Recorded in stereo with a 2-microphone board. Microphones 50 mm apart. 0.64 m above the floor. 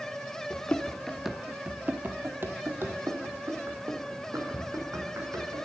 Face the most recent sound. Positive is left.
turn(degrees=-60)  # may be behind; listen again after turning